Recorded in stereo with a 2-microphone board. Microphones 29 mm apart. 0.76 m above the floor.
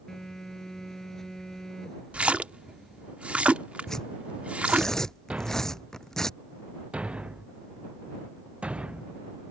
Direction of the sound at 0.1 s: 15° left (ahead or behind).